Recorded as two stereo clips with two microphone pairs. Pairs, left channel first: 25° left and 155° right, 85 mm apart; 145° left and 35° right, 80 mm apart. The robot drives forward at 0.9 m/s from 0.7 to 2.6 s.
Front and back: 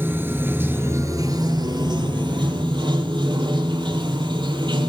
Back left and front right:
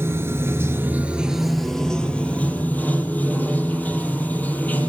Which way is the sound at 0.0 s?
90° right.